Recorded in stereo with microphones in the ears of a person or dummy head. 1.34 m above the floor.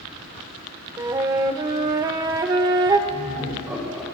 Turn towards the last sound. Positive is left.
turn(degrees=-10)  # may be behind; listen again after turning